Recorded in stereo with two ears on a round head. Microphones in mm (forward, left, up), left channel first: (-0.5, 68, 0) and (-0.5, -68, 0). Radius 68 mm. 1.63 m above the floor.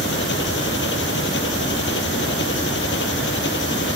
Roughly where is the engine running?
Left.